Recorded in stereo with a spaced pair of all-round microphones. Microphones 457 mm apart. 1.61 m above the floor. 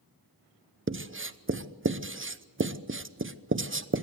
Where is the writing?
25° right (ahead or behind), 0.8 m.